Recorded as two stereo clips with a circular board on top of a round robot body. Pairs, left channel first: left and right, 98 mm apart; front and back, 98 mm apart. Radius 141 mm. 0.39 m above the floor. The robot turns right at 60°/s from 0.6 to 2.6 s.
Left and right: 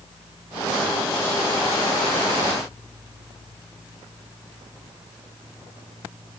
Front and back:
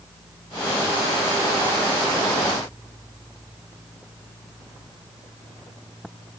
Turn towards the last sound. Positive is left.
No sound to turn to.